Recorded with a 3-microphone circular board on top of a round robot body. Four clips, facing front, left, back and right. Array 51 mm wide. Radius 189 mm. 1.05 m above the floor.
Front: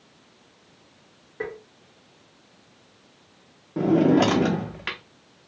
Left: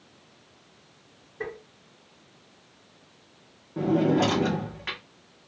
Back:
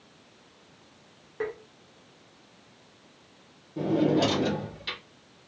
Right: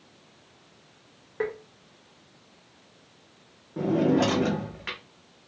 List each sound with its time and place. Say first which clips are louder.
1.4 s tapping: right 5 dB, even; 90° right, 1.4 m
3.8 s a drawer: even, front 5 dB; straight ahead, 0.6 m